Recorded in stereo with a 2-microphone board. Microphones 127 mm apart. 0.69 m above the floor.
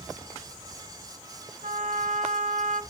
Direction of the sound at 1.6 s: 75° right (ahead or behind).